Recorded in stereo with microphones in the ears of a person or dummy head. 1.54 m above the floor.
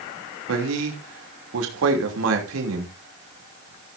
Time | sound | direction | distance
0.5 | a man speaking | 75° right (ahead or behind) | 3 m